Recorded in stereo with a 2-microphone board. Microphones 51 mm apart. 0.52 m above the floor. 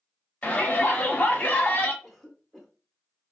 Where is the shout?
30° left (ahead or behind), 1.1 m.